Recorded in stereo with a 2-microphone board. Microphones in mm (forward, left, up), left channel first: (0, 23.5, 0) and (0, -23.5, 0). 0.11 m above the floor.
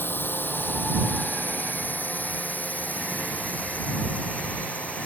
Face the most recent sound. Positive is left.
turn(degrees=30)  # may be behind; listen again after turning